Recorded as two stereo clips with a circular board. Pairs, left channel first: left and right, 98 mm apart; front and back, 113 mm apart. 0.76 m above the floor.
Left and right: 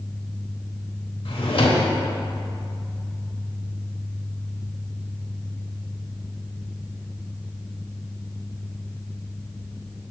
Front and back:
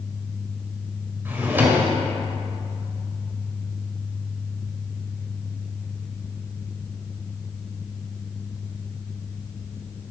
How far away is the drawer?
About 1.4 m.